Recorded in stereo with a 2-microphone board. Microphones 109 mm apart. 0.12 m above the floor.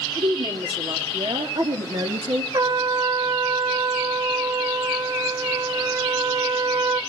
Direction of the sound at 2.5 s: 40° right (ahead or behind).